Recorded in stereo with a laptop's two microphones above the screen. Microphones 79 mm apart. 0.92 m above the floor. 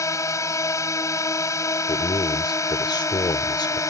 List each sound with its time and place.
0.0 s a drone: 40° left (ahead or behind)
1.9 s a man speaking: 70° left (ahead or behind)